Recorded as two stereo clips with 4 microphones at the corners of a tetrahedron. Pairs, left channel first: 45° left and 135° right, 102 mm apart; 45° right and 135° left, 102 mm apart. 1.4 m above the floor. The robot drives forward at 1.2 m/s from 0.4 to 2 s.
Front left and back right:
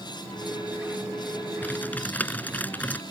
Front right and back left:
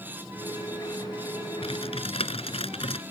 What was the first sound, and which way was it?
Typing on a keyboard, 25° right.